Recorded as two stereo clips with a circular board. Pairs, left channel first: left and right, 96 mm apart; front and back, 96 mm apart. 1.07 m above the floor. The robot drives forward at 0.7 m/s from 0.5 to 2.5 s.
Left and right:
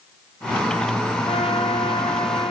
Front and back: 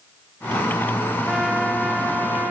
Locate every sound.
1.3 s a trumpet: 95° left, 3.5 m; by 2.5 s 110° left, 4 m